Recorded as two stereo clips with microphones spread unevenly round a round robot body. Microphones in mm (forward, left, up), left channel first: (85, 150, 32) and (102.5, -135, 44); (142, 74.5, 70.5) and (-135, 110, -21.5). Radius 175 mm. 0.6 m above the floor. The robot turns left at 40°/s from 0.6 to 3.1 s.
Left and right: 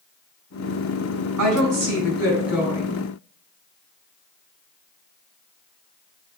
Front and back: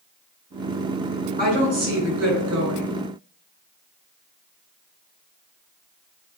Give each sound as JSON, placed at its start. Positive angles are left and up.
{"t": 1.4, "sound": "a woman speaking", "azimuth_deg": -115, "distance_m": 4.0}